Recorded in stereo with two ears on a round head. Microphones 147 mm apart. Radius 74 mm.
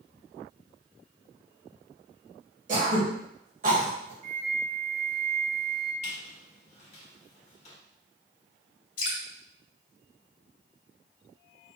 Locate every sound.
2.7 s throat clearing: 50° right (ahead or behind), 2.5 m
4.2 s a flute: 50° right (ahead or behind), 2.5 m
6.0 s a squeak: 45° left (ahead or behind), 1.6 m
9.0 s dripping: 55° left (ahead or behind), 1.8 m